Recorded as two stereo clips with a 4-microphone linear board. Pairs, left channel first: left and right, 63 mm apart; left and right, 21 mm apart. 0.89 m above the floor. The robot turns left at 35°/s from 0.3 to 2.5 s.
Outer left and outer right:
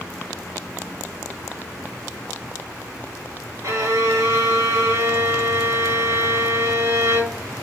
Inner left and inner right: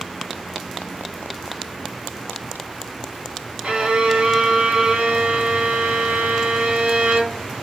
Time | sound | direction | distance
3.6 | a violin | 50° right (ahead or behind) | 1.5 m